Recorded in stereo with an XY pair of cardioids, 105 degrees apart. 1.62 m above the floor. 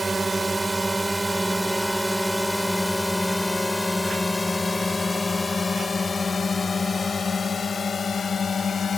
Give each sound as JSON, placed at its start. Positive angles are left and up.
{"t": 0.0, "sound": "a drone", "azimuth_deg": -20}